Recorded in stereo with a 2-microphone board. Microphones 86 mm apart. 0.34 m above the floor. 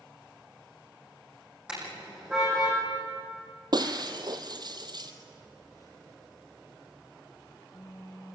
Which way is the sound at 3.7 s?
50° right (ahead or behind).